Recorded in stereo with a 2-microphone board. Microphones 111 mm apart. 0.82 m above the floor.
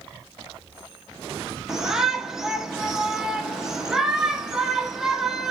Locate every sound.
1.7 s a shout: 5° right (ahead or behind), 0.6 m